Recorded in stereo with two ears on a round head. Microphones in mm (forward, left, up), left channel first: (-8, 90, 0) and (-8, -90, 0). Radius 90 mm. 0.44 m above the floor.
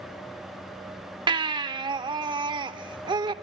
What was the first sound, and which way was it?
A baby crying, 25° right (ahead or behind).